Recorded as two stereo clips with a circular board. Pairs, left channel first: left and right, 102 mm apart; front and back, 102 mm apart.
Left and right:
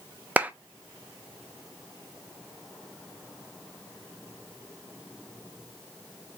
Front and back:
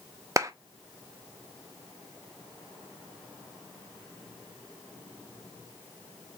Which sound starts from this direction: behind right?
A clap, at 0.4 s.